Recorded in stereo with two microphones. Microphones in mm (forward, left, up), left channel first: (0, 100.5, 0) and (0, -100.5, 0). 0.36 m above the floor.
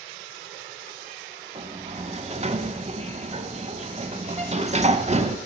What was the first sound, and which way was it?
A sliding door, 30° right (ahead or behind).